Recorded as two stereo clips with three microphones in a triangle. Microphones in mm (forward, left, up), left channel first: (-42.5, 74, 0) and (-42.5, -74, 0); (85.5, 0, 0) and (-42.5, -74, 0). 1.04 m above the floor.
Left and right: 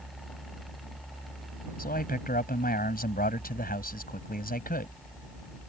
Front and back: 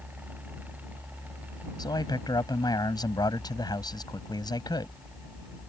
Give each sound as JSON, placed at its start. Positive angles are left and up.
{"t": 1.8, "sound": "a man speaking", "azimuth_deg": 90}